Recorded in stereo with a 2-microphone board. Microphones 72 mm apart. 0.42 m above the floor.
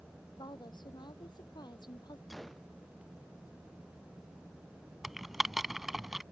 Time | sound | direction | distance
0.4 | a woman speaking | 85° left | ?
2.3 | a gunshot | centre (ahead or behind) | ?
5.0 | typing on a keyboard | 5° right (ahead or behind) | ?